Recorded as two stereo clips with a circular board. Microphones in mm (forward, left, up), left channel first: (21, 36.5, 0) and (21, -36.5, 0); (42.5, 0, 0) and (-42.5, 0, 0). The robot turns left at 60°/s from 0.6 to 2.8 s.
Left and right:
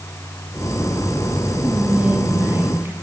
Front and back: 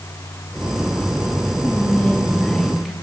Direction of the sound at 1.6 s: 25° right.